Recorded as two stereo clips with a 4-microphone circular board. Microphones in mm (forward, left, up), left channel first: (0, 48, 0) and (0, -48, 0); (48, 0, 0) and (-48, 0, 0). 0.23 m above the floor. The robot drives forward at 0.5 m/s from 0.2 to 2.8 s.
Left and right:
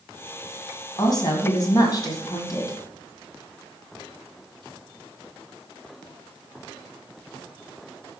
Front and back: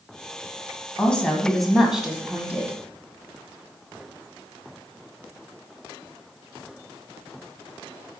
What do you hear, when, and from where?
1.0 s a woman speaking: 75° left, 1.6 m; by 2.8 s 115° left, 1.7 m